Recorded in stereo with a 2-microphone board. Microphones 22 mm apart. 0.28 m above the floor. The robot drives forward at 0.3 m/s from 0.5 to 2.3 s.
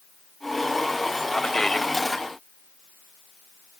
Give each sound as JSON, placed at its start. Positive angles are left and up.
{"t": 1.3, "sound": "a man speaking", "side_deg": 25, "distance_m": 1.0}